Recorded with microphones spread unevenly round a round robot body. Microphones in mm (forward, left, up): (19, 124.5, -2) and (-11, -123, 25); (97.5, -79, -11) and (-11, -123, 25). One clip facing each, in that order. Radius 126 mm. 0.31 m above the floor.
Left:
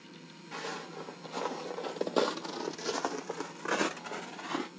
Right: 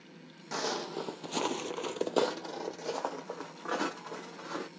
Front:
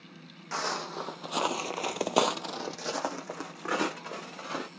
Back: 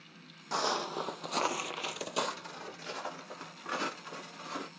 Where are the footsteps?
95° right, 0.9 m; by 4.7 s 45° left, 1.6 m.